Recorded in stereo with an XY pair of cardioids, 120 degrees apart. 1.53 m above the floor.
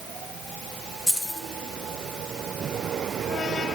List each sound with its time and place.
1.1 s keys jangling: 10° left, 2 m